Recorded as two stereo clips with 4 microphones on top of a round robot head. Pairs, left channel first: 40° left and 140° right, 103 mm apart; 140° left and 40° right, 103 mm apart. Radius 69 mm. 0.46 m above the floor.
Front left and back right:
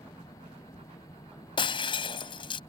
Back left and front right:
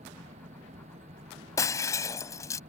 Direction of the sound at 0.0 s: 25° right.